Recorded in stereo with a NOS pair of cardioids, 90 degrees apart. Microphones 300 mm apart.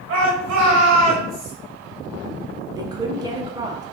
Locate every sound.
0.1 s a shout: 60° right, 1.0 m
2.8 s a woman speaking: 15° right, 0.7 m